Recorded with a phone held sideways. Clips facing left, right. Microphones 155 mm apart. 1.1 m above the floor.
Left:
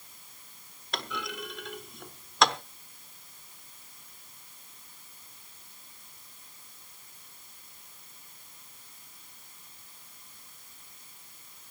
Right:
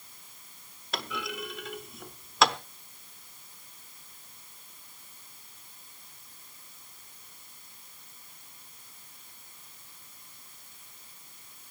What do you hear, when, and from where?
0.9 s a clunk: centre (ahead or behind), 0.8 m